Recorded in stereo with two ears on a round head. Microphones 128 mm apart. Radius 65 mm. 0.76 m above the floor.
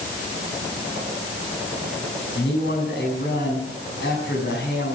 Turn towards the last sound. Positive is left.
turn(degrees=80)